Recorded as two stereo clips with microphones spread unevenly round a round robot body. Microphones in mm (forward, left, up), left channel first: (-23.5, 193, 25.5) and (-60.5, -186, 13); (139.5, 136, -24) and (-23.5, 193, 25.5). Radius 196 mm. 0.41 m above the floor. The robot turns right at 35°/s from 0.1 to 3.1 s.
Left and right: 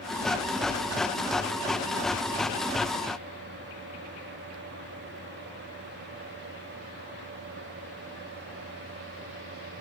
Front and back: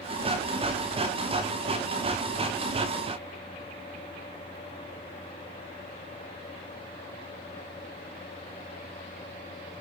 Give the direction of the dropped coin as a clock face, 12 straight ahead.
No dropped coin in this recording.